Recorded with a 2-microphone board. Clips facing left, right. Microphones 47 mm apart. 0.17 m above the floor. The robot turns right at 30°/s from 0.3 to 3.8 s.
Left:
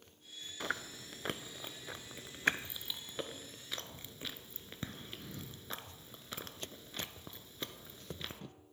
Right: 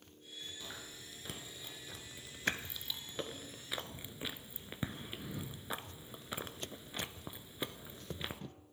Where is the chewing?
65° left (ahead or behind), 0.5 m; by 8.4 s 15° right (ahead or behind), 0.5 m.